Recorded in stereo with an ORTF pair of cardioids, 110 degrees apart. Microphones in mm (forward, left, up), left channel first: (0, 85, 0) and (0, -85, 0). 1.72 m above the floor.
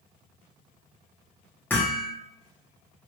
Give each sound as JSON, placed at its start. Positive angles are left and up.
{"t": 1.7, "sound": "hammering", "azimuth_deg": 10, "distance_m": 1.5}